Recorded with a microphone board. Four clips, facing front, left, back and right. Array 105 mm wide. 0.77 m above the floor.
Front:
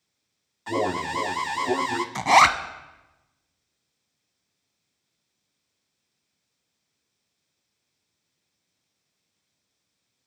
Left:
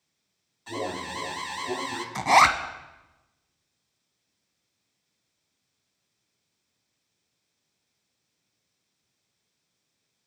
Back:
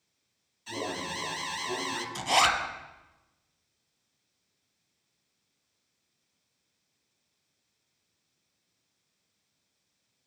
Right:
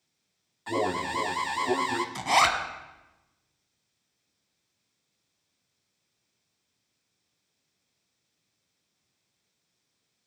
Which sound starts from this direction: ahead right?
An alarm, at 0.7 s.